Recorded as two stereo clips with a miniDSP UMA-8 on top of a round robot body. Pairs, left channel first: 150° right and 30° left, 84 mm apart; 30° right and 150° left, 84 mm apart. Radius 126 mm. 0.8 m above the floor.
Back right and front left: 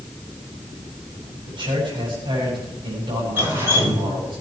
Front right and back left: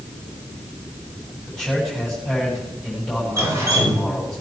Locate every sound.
1.5 s a man speaking: 55° left, 7 m
3.4 s dripping: 95° left, 4.5 m